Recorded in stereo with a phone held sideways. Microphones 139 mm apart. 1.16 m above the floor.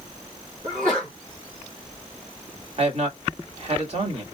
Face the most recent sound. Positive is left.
turn(degrees=-50)  # may be behind; listen again after turning